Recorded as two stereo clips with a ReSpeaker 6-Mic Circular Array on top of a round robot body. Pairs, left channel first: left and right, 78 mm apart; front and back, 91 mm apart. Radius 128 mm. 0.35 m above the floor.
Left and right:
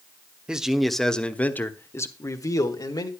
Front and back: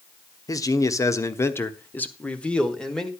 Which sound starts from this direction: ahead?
A man speaking, at 0.5 s.